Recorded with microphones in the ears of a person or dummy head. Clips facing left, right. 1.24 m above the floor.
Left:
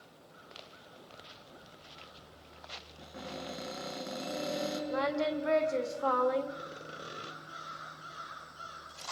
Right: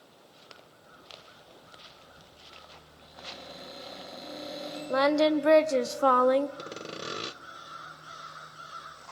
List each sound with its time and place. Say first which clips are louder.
3.0 s a cupboard door: left 5 dB; 55° left (ahead or behind), 6.5 m
4.9 s singing: right 10 dB; 60° right (ahead or behind), 1.2 m
6.6 s sawing: right 6 dB; 75° right (ahead or behind), 0.7 m